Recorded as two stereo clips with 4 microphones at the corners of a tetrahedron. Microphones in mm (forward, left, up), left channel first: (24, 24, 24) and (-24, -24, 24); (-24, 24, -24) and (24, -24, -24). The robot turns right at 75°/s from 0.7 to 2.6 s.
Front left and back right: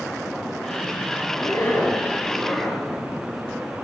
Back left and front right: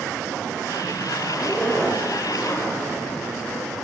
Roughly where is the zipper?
Ahead left.